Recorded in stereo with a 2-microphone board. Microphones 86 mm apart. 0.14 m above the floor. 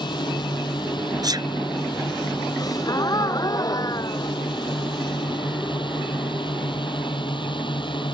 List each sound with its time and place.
0.0 s a drone: 65° left (ahead or behind); by 8.2 s 70° left (ahead or behind)
1.2 s a sneeze: 50° right (ahead or behind)
2.6 s a gasp: 45° left (ahead or behind)